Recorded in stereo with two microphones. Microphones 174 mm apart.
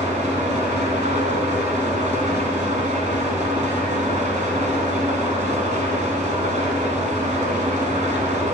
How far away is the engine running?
About 1.2 m.